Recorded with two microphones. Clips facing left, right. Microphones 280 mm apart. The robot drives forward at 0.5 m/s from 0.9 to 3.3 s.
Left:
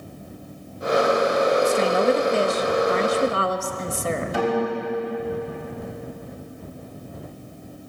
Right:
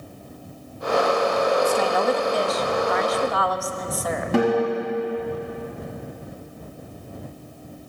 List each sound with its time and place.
1.6 s a woman speaking: 25° left (ahead or behind), 0.9 m; by 4.4 s 30° left (ahead or behind), 0.7 m
4.3 s a guitar: 85° right, 5 m